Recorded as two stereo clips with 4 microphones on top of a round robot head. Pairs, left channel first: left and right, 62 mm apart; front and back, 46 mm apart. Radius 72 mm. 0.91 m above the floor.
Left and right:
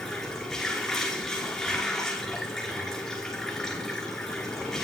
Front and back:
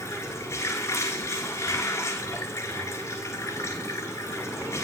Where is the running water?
5° left, 6.5 m.